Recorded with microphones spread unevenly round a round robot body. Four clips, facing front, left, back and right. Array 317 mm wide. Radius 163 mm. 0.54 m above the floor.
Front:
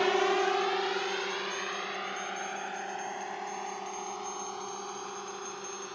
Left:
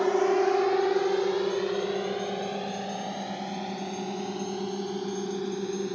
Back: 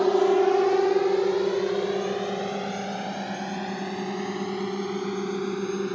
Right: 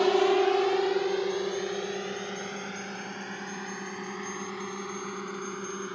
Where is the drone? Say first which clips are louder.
Right 1 dB, back 7 dB; 170° right; by 5.9 s 155° left.